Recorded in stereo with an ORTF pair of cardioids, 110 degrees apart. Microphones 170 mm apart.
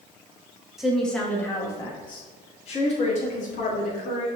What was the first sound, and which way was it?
A woman speaking, straight ahead.